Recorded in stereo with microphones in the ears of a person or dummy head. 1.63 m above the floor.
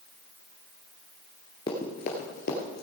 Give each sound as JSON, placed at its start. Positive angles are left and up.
{"t": 1.7, "sound": "running footsteps", "side_deg": 20, "distance_m": 1.7}